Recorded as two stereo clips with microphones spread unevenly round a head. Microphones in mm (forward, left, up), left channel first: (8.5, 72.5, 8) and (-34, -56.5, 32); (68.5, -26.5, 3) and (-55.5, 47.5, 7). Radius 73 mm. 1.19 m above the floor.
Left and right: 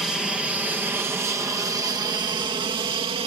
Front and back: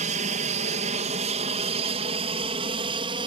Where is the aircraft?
155° left; by 3.3 s 155° right.